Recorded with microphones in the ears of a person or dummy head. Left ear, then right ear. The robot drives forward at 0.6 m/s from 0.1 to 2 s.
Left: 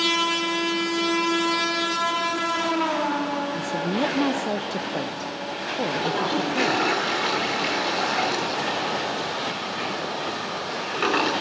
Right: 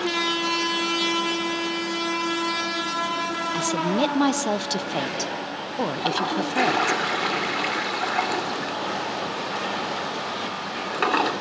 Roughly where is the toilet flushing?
Right.